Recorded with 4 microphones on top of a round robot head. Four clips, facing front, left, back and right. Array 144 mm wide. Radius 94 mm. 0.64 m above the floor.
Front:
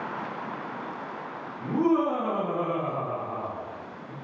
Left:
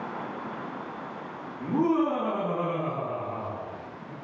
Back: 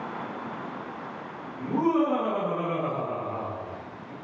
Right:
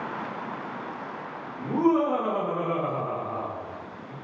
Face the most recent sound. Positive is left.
turn(degrees=15)